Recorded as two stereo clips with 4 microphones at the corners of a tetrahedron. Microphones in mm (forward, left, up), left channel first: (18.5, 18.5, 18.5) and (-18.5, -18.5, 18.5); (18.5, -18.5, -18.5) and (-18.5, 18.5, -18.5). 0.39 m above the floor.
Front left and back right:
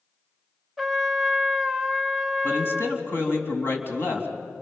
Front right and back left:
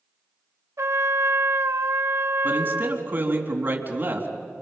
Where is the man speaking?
85° left, 3.5 m.